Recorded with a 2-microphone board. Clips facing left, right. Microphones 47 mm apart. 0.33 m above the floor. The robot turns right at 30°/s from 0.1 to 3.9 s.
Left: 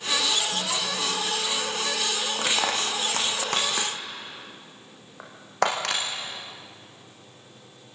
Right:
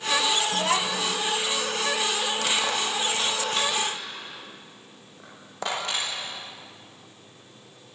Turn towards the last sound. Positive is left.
turn(degrees=75)  # may be behind; listen again after turning